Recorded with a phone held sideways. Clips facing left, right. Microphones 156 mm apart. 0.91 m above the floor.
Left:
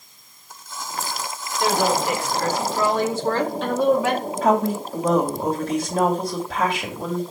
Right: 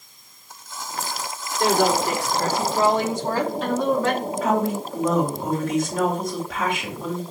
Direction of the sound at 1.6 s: 50° right (ahead or behind).